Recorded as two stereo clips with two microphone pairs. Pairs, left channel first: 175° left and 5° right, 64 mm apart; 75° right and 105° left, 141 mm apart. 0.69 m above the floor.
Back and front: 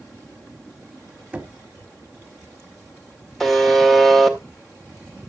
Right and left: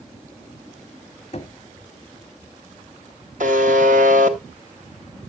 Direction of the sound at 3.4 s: 90° left.